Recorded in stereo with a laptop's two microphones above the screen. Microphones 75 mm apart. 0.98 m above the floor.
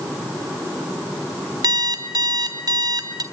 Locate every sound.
1.6 s an alarm clock: 60° right (ahead or behind), 3 m